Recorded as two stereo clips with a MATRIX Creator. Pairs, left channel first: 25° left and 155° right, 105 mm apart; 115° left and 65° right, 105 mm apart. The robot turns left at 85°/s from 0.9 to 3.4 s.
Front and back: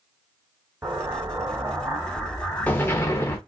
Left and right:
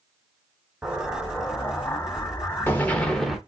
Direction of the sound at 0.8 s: 135° right.